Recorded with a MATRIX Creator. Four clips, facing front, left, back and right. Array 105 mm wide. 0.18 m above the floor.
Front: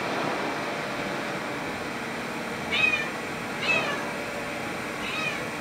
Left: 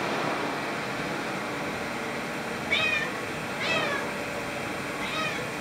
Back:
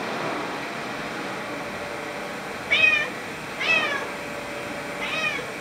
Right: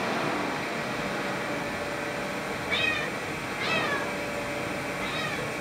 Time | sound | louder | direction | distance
2.7 | a cat meowing | left 1 dB, back 6 dB | 170° left | 0.7 m